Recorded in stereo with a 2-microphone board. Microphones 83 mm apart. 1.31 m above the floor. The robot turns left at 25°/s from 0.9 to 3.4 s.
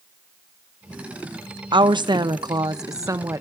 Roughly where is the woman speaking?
Right.